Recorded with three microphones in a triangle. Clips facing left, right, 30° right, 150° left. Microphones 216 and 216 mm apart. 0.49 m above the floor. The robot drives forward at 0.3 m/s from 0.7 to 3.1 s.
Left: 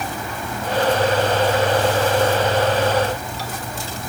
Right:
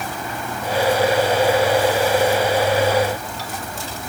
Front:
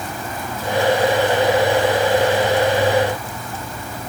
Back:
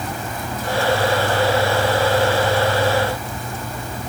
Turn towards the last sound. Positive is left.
No sound to turn to.